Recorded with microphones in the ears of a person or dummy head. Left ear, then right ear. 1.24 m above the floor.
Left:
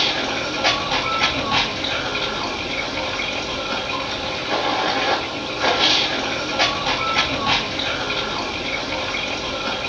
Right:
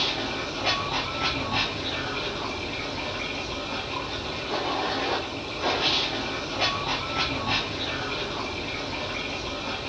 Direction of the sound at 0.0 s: 50° left (ahead or behind).